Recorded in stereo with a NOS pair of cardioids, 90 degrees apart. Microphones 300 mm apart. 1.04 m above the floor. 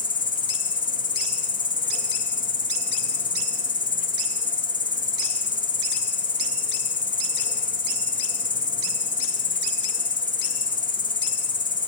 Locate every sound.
0.0 s an insect: 30° left, 1.3 m